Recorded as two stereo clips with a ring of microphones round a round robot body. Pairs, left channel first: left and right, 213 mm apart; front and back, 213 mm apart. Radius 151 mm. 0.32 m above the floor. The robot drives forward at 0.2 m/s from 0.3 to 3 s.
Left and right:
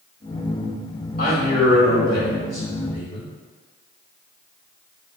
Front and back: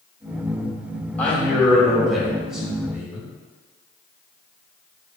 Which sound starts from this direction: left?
A man speaking, at 1.2 s.